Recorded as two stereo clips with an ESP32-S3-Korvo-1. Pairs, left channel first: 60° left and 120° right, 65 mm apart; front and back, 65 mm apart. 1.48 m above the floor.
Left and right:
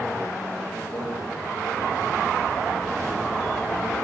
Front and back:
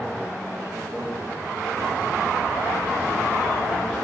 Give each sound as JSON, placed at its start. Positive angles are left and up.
{"t": 0.9, "sound": "a microwave", "azimuth_deg": 135, "distance_m": 2.5}